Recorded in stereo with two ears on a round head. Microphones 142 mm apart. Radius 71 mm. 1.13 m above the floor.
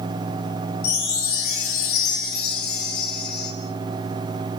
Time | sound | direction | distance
0.8 | a chime | 70° left (ahead or behind) | 4.5 m